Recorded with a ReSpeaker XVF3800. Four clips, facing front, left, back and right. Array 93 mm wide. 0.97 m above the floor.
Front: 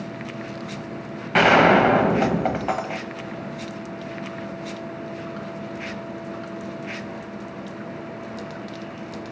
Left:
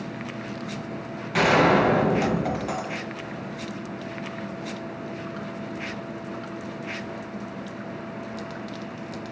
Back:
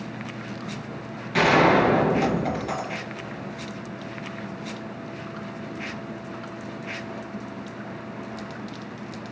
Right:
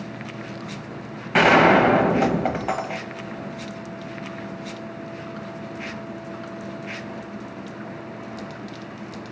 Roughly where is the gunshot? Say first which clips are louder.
Right 4 dB, front 3 dB; ahead right.